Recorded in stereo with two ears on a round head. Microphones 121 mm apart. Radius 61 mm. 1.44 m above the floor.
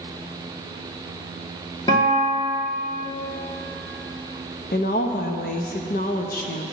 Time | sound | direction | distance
1.9 | a guitar | 30° left (ahead or behind) | 2 m
4.7 | a woman speaking | 70° left (ahead or behind) | 0.9 m